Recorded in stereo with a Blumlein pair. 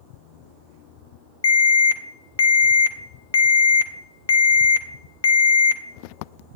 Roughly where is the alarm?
Ahead left.